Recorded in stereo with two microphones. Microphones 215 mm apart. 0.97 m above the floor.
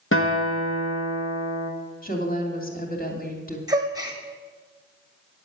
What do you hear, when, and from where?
0.1 s a guitar: 65° left (ahead or behind), 1.7 m
2.0 s a woman speaking: 40° left (ahead or behind), 2.5 m
3.7 s a gasp: 15° right (ahead or behind), 1.5 m